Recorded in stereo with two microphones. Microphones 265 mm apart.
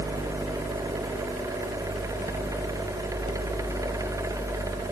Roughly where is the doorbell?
I don't hear a doorbell.